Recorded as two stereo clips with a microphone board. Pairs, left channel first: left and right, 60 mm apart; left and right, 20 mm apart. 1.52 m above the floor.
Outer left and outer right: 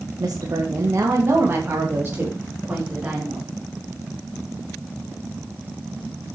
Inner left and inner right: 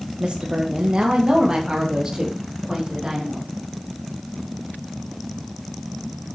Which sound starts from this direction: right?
A woman speaking, at 0.2 s.